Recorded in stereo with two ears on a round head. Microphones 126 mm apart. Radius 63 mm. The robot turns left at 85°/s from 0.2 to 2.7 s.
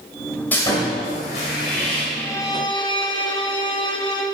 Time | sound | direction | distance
0.5 | sawing | 165° left | 1.7 m
2.1 | a violin | 160° left | 0.8 m